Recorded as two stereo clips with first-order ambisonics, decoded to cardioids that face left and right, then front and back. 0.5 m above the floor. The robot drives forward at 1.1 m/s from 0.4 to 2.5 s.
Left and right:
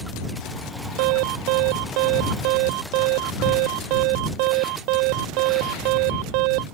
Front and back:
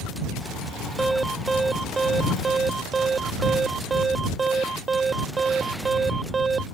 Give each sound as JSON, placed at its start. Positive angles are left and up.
{"t": 1.0, "sound": "an alarm", "azimuth_deg": -100}